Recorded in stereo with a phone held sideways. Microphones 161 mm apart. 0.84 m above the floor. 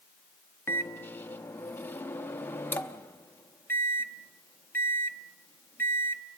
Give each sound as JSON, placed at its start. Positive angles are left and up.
{"t": 0.7, "sound": "a microwave", "side_deg": 15, "distance_m": 0.8}